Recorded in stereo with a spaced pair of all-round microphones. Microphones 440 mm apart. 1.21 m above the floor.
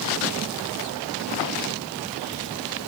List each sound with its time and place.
Only background noise.